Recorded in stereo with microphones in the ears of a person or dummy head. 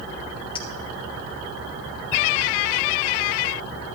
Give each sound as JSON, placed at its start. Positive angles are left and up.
{"t": 0.6, "sound": "a clink", "side_deg": 30, "distance_m": 0.8}